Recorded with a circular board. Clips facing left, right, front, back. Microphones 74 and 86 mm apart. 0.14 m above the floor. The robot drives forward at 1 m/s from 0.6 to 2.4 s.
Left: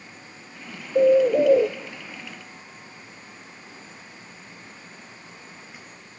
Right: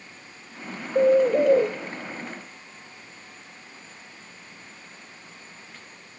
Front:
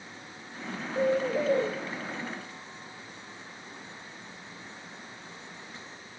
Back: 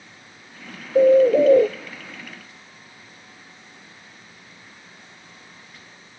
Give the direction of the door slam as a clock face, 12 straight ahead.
I don't hear a door slam.